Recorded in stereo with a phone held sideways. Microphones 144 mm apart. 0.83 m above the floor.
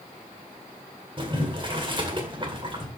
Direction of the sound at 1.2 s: 35° right (ahead or behind).